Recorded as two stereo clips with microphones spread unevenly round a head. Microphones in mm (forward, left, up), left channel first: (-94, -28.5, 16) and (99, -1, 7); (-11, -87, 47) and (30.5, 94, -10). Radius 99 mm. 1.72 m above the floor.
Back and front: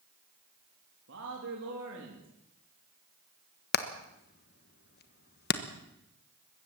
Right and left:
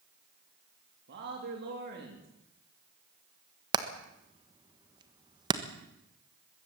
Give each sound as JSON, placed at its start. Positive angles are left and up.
{"t": 1.1, "sound": "a man speaking", "azimuth_deg": 40, "distance_m": 3.5}
{"t": 3.7, "sound": "hammering", "azimuth_deg": 155, "distance_m": 1.3}